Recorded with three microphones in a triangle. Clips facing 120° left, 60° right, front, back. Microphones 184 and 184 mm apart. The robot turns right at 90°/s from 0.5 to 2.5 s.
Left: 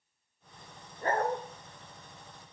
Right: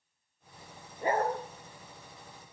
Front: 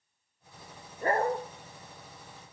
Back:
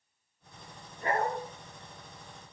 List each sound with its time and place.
1.0 s a dog barking: 5° left, 0.7 m; by 1.4 s 40° left, 0.7 m